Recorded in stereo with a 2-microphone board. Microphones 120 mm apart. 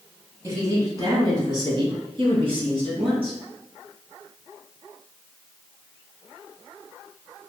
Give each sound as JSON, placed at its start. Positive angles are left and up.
{"t": 0.4, "sound": "a woman speaking", "side_deg": -25, "distance_m": 1.3}